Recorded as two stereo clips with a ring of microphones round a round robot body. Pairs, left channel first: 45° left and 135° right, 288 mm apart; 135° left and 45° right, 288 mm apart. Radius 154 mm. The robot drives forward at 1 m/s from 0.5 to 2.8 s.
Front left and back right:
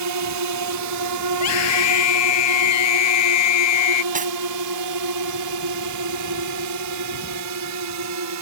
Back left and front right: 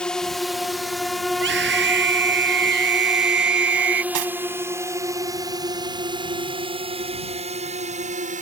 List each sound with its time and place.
0.0 s a drone: 140° right; by 8.4 s 110° right
1.3 s a scream: 10° left
4.1 s cutlery clinking: 70° right